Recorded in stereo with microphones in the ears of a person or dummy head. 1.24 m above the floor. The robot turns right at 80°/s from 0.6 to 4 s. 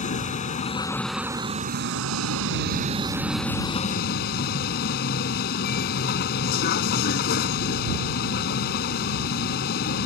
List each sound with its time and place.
0.0 s a vehicle: 145° left; by 10.1 s 60° left